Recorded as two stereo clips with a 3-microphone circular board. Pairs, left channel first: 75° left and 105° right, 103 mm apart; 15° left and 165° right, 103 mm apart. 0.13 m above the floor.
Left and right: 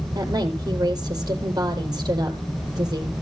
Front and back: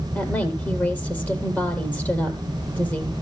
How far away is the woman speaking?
About 4 m.